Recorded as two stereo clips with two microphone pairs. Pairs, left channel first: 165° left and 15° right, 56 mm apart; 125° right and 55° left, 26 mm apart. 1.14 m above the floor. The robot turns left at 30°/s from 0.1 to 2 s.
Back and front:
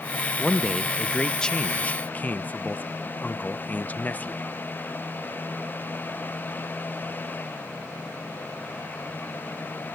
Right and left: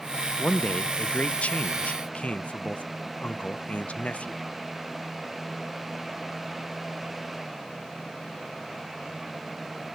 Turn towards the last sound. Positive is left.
turn(degrees=-140)